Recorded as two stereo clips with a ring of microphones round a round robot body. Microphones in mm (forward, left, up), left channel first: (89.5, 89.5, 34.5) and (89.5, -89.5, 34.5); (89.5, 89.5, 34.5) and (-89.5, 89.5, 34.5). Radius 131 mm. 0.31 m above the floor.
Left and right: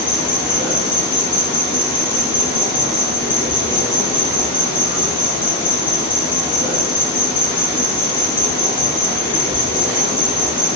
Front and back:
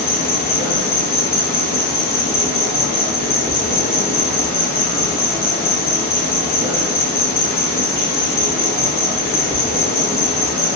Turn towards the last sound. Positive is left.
turn(degrees=30)